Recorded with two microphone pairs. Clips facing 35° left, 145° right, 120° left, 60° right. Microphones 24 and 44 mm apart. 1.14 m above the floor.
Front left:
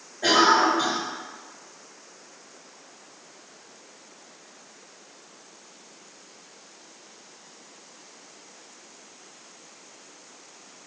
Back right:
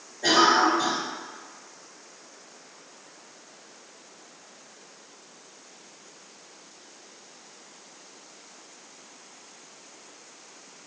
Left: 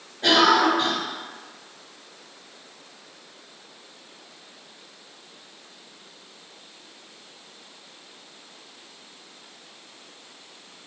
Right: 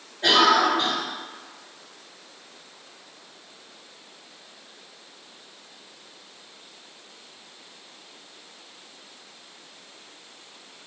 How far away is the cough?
About 1.9 m.